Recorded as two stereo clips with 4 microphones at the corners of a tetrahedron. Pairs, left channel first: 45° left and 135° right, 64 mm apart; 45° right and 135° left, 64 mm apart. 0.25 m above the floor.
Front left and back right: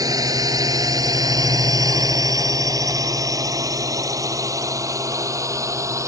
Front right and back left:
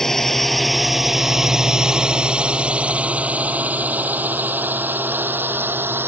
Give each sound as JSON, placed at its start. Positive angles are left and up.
{"t": 0.0, "sound": "a drone", "azimuth_deg": -130}